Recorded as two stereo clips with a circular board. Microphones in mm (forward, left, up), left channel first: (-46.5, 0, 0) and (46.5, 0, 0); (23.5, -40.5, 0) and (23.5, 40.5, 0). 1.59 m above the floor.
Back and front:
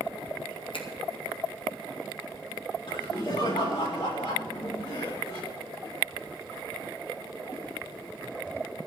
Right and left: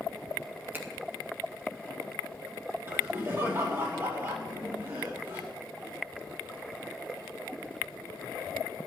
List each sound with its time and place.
0.7 s a finger snap: 155° left, 1.3 m
2.9 s laughter: 150° left, 4.5 m